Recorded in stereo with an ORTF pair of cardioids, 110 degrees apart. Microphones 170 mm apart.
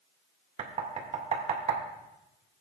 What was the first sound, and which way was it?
Knocking, 40° right.